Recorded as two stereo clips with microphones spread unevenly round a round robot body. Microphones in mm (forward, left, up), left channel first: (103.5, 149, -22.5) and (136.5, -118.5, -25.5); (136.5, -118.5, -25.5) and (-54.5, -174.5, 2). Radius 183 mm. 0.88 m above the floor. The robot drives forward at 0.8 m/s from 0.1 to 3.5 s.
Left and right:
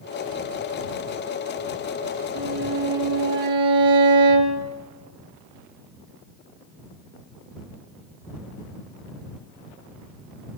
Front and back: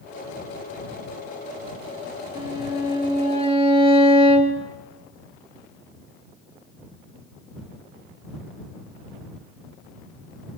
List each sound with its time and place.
2.4 s a violin: 90° right, 4 m; by 4.6 s 105° right, 4 m